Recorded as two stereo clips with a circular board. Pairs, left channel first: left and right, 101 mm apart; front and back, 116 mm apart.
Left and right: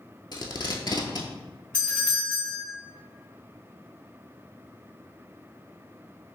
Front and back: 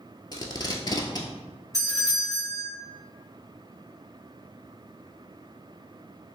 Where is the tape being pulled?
50° left, 0.6 m.